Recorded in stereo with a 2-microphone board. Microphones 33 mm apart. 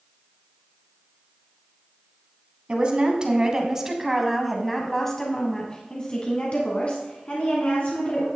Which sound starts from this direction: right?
A woman speaking, at 2.7 s.